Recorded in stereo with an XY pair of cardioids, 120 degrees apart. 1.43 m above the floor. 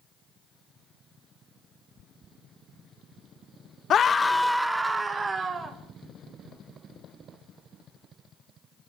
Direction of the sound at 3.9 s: 50° left.